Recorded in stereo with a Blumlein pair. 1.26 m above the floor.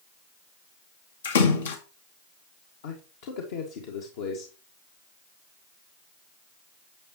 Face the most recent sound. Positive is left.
turn(degrees=55)